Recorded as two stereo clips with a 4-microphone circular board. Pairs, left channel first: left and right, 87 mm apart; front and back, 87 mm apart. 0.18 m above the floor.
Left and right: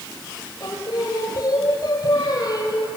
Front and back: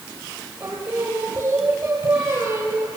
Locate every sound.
0.6 s singing: 115° left, 3 m